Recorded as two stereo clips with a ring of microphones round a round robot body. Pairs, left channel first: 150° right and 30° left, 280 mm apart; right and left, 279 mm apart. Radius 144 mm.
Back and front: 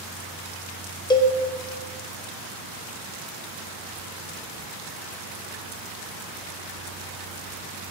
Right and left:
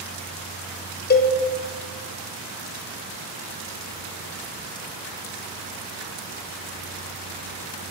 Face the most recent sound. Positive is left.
turn(degrees=-85)